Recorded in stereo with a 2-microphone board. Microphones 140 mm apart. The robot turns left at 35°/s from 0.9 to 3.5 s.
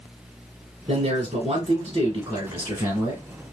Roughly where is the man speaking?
Right.